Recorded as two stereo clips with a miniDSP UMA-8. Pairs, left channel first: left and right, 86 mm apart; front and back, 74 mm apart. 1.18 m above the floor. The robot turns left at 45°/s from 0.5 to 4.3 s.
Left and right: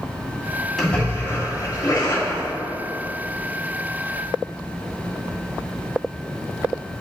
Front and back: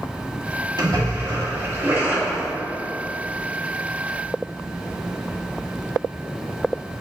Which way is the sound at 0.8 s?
175° left.